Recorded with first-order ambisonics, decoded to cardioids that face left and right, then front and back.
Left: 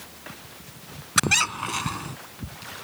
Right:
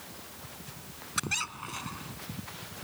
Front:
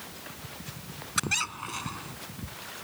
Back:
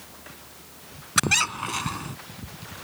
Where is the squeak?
125° left.